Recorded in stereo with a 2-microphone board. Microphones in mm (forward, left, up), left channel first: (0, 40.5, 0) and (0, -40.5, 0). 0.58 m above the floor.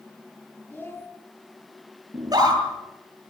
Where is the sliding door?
I don't hear a sliding door.